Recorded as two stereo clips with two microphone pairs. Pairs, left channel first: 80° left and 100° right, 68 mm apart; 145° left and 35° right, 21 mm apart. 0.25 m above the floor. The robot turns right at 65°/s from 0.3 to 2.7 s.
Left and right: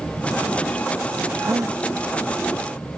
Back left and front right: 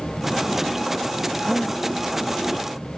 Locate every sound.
1.4 s a gasp: 150° right; by 1.8 s 120° right